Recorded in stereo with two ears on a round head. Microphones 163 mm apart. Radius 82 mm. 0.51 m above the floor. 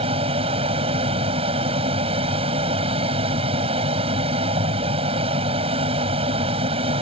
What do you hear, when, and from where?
0.0 s an aircraft: 30° right (ahead or behind)